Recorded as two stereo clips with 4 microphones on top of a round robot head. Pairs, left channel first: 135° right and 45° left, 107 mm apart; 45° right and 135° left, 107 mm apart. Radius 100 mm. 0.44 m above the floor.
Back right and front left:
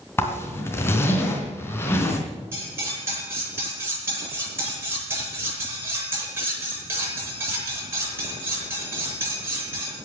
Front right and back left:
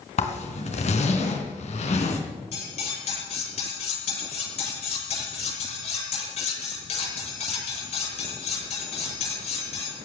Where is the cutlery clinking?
20° right, 9 m.